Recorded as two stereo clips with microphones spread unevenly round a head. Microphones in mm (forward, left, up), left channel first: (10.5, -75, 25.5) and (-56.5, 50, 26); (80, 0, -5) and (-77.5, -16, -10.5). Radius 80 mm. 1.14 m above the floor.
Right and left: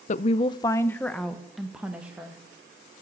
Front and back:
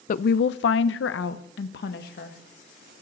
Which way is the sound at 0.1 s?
30° right.